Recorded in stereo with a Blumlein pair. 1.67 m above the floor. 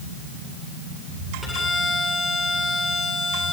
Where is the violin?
Straight ahead, 9.5 m.